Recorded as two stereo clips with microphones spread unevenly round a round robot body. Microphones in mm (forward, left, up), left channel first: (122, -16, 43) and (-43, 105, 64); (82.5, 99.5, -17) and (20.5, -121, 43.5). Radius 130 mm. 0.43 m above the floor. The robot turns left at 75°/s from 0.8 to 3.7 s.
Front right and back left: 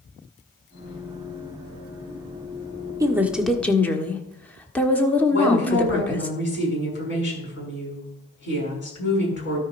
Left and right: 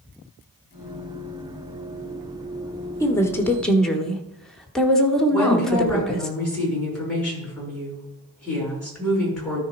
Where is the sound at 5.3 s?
10° right, 5.5 m.